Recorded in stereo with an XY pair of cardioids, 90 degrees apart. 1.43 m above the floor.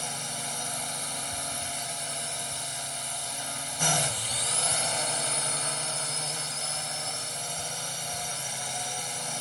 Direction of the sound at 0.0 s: 5° left.